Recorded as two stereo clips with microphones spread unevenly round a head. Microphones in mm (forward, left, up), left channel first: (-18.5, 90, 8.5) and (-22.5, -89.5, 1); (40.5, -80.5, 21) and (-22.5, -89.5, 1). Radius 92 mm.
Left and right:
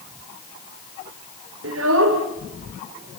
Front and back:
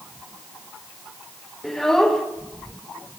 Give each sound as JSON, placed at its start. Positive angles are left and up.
{"t": 1.6, "sound": "a child speaking", "azimuth_deg": -70, "distance_m": 3.0}